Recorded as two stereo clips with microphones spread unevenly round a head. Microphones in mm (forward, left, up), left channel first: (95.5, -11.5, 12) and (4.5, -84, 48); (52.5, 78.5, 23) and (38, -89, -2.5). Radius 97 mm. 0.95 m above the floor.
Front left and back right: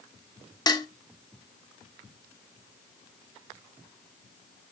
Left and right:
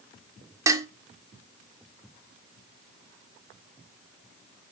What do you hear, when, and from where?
0.7 s dishes clattering: 20° right, 1.3 m